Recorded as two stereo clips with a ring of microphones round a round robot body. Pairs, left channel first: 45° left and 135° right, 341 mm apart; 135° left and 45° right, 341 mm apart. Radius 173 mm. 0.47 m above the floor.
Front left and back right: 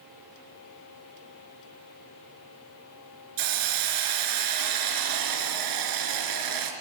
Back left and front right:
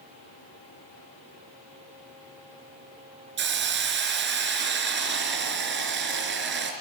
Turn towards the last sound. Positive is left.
turn(degrees=-105)